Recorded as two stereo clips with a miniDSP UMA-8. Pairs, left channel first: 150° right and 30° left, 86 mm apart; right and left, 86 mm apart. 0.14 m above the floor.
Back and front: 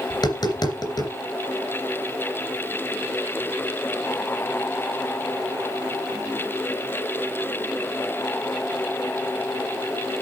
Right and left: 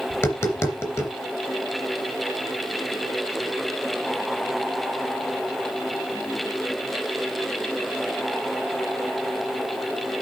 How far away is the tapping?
About 3 m.